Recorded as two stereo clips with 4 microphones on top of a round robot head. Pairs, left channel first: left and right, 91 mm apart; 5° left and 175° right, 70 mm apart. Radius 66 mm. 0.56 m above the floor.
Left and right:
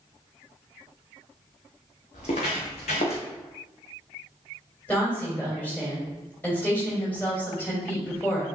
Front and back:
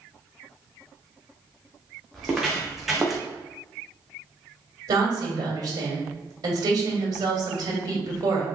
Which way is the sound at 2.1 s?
105° left.